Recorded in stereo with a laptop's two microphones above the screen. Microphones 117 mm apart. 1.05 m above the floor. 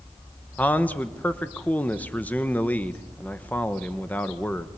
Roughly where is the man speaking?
Centre.